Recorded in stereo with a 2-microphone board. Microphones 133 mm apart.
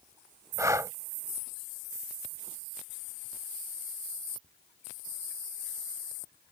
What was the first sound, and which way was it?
Breathing, 20° right (ahead or behind).